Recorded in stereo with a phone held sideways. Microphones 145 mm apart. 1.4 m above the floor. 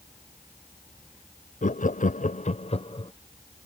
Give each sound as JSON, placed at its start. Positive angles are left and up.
{"t": 1.6, "sound": "laughter", "side_deg": 60}